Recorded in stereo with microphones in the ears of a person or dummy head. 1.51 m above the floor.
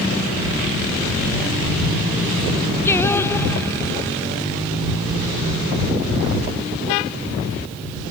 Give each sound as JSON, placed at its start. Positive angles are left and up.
{"t": 2.9, "sound": "singing", "side_deg": 15}